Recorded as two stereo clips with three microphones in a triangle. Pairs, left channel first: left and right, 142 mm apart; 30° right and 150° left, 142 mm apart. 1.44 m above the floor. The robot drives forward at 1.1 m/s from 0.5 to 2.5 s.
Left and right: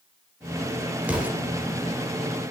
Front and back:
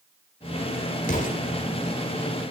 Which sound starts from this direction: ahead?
An explosion, at 1.0 s.